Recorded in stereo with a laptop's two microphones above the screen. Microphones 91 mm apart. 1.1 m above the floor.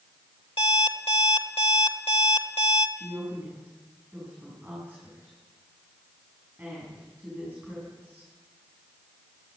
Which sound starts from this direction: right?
A woman speaking, at 3.0 s.